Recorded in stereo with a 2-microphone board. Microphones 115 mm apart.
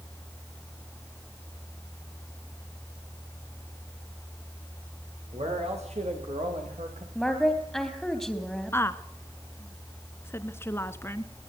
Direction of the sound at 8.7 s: 20° left (ahead or behind).